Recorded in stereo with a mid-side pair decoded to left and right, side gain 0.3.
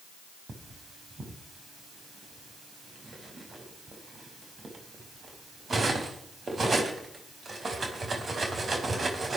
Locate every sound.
0.5 s cutlery clinking: 55° right, 4 m